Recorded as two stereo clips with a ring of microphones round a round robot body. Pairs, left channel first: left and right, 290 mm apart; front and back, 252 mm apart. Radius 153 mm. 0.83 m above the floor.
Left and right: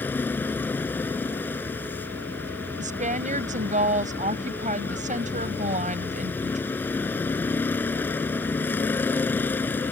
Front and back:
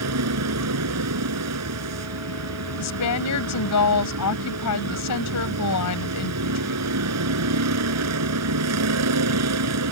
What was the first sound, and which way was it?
A vehicle, 175° left.